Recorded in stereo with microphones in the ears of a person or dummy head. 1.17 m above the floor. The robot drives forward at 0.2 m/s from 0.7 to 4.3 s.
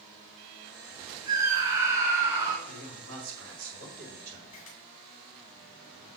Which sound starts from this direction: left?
A camera shutter, at 4.5 s.